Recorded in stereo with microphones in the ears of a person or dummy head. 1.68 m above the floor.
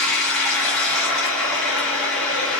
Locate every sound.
0.0 s running water: 10° left (ahead or behind), 1.0 m